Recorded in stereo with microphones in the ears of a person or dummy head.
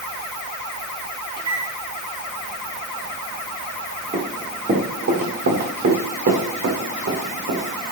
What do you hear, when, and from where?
1.4 s a microwave: 25° right (ahead or behind), 3.5 m
4.1 s running footsteps: 35° right (ahead or behind), 4.5 m; by 7.6 s 60° right (ahead or behind), 6.5 m